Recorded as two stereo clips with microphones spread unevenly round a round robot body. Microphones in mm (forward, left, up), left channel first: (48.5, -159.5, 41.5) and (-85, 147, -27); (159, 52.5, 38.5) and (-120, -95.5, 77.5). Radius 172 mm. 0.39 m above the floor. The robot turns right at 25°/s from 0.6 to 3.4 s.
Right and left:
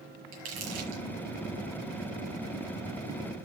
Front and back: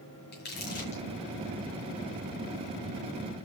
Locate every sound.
0.3 s crumpling: 90° left, 5.5 m; by 1.0 s 100° left, 5.5 m